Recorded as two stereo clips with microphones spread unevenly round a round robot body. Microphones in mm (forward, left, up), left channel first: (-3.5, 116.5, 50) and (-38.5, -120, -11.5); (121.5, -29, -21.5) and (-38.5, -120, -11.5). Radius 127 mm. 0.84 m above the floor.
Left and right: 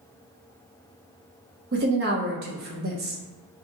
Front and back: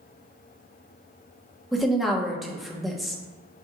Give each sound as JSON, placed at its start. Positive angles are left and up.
{"t": 1.7, "sound": "a woman speaking", "azimuth_deg": -60, "distance_m": 0.9}